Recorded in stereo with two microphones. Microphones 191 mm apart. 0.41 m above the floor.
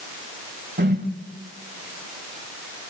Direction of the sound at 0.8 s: 65° right (ahead or behind).